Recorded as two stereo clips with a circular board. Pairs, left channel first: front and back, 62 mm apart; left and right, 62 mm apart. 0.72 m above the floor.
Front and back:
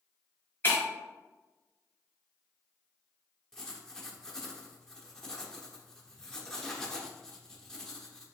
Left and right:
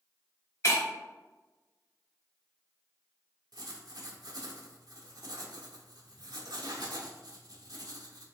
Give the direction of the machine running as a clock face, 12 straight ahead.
No machine running in this recording.